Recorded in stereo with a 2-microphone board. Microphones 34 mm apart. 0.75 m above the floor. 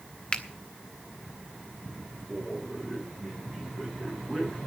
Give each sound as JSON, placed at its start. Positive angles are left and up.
{"t": 0.3, "sound": "a finger snap", "side_deg": 30, "distance_m": 1.2}
{"t": 2.3, "sound": "a man speaking", "side_deg": 10, "distance_m": 7.0}